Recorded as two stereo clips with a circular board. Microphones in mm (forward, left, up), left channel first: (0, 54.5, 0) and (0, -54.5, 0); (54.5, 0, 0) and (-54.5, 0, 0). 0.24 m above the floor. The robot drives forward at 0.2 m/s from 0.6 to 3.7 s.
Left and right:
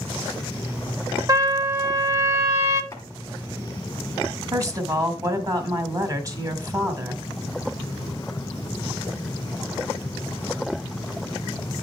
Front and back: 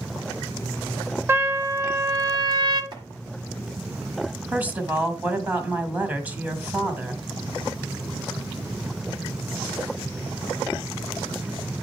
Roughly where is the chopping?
Behind left.